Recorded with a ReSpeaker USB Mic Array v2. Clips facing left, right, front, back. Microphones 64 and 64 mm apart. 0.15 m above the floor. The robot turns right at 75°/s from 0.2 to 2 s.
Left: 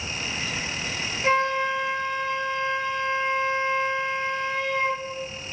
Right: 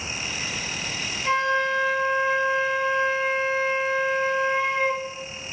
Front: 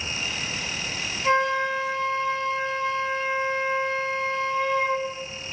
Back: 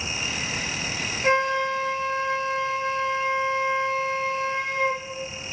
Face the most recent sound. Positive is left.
turn(degrees=-170)